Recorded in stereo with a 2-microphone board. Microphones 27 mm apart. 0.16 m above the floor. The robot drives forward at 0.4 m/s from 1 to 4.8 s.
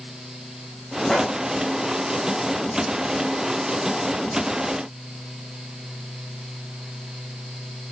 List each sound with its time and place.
1.1 s a gunshot: 10° left (ahead or behind), 6 m